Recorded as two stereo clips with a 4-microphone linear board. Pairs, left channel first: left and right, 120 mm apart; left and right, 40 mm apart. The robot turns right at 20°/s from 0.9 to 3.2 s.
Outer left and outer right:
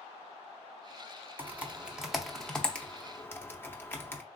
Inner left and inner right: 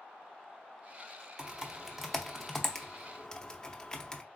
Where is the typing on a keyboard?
15° right (ahead or behind), 0.6 m; by 4.2 s 20° left (ahead or behind), 0.6 m.